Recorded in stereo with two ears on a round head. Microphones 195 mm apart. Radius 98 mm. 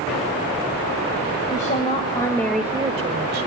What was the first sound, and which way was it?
A woman speaking, 35° left (ahead or behind).